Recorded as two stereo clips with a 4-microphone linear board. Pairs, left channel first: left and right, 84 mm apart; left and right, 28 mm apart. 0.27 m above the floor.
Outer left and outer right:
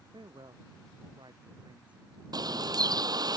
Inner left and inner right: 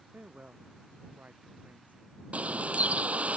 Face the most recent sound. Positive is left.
turn(degrees=-55)  # may be behind; listen again after turning